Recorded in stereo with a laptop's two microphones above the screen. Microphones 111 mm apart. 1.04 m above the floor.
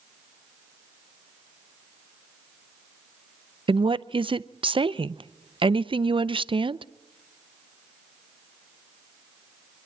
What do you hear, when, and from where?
3.7 s a woman speaking: 50° right (ahead or behind), 0.5 m